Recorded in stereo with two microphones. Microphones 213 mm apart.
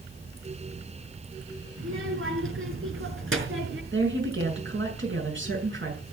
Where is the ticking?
I don't hear ticking.